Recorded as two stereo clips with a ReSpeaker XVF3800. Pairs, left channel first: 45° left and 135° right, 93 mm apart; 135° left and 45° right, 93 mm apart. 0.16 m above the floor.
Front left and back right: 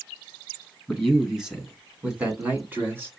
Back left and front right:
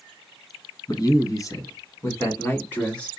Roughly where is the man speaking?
Behind left.